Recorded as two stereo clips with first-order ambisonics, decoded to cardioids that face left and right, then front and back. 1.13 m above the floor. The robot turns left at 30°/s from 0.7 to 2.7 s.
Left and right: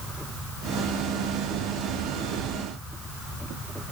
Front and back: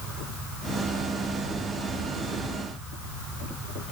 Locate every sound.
Only background noise.